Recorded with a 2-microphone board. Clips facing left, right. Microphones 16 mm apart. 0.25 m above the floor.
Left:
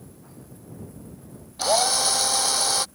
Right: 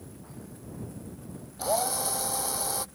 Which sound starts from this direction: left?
A drill, at 1.6 s.